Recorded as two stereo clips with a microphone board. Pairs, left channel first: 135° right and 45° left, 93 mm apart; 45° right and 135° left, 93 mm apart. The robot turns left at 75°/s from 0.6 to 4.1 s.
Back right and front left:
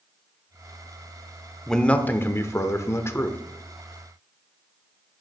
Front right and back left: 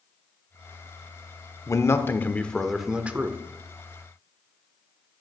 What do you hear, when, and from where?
1.7 s a man speaking: 55° right, 0.9 m; by 3.4 s 175° left, 0.9 m